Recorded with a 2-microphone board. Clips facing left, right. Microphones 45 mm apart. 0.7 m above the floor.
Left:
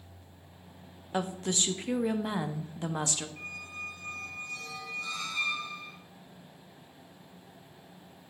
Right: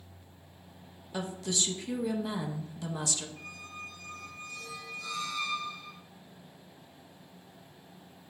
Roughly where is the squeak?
Left.